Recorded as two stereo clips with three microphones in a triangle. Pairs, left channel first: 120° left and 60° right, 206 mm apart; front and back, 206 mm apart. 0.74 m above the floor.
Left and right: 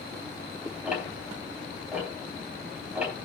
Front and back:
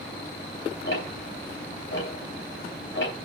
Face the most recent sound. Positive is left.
turn(degrees=25)